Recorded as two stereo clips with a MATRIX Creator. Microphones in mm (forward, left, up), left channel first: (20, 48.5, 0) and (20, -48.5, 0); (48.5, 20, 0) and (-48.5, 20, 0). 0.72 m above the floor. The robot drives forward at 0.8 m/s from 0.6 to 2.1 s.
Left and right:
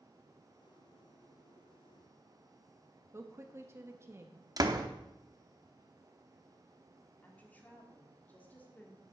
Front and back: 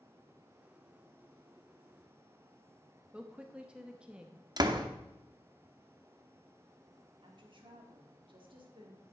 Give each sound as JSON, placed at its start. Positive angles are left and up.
{"t": 3.1, "sound": "a woman speaking", "azimuth_deg": -110, "distance_m": 0.9}
{"t": 4.6, "sound": "a door slam", "azimuth_deg": -135, "distance_m": 0.7}
{"t": 7.2, "sound": "a woman speaking", "azimuth_deg": 160, "distance_m": 1.6}